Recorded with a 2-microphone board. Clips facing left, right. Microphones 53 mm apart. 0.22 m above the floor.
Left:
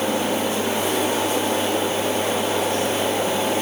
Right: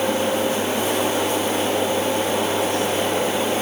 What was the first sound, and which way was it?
Only background noise.